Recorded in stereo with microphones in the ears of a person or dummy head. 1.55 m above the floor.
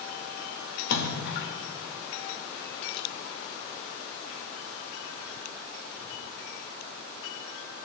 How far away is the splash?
About 1.8 m.